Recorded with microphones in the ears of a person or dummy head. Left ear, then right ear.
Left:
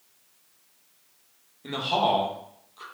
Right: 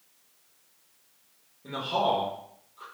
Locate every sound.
1.6 s a man speaking: 40° left (ahead or behind), 1.2 m